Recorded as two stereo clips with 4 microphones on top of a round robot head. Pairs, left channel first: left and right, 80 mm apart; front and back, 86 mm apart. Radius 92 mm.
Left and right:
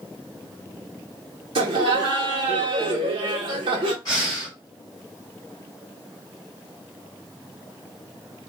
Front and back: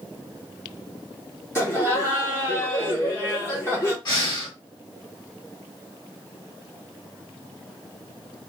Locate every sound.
1.6 s laughter: 70° right, 1.6 m
4.0 s breathing: 30° left, 1.7 m